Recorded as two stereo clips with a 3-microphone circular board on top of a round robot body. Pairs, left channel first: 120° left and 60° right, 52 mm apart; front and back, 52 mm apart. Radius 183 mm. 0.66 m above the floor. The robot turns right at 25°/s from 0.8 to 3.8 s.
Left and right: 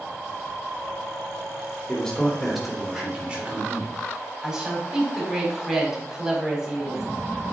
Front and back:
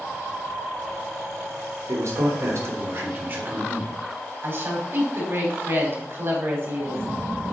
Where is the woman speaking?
135° right, 4.5 m.